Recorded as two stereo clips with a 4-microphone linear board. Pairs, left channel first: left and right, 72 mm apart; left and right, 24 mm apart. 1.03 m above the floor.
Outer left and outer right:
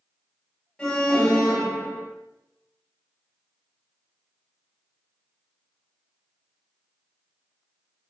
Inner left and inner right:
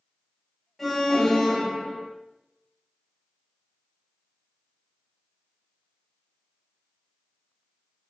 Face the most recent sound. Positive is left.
turn(degrees=15)  # may be behind; listen again after turning